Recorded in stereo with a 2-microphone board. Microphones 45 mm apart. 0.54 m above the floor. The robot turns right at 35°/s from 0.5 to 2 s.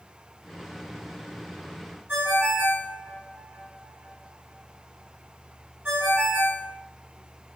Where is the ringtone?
60° right (ahead or behind), 1.3 m.